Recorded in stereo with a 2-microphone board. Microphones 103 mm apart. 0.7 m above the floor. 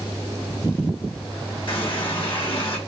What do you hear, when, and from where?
1.7 s a running tap: 55° left (ahead or behind), 1.4 m